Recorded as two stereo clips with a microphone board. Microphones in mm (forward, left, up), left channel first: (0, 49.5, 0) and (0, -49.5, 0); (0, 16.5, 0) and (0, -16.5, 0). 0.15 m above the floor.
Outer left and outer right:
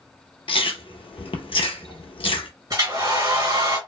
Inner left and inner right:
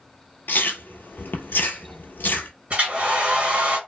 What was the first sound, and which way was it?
Chewing, 70° left (ahead or behind).